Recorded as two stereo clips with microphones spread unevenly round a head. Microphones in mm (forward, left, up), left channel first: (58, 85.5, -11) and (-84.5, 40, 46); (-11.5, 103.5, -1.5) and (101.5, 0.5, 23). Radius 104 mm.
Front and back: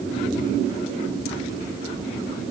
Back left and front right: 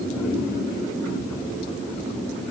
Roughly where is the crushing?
No crushing in this recording.